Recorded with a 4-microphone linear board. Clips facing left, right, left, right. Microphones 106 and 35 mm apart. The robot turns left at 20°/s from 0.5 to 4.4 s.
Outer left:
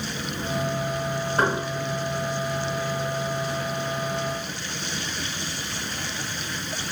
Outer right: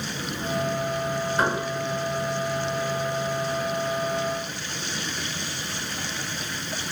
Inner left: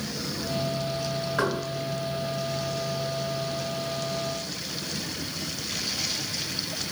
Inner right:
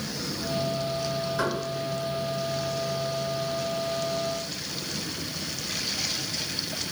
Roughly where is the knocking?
Left.